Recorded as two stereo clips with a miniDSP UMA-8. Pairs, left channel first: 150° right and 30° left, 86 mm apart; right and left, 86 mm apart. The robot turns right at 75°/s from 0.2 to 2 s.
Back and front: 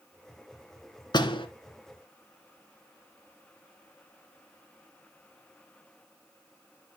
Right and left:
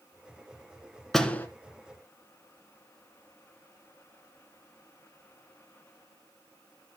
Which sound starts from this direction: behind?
A door slam, at 1.1 s.